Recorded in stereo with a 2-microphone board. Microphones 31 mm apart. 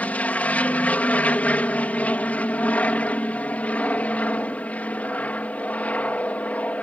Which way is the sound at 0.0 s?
55° left (ahead or behind).